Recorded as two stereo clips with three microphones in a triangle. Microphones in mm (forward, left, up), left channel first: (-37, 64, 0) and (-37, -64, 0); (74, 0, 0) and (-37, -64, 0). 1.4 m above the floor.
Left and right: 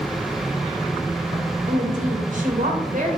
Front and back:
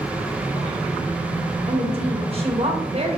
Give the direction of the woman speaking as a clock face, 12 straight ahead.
4 o'clock.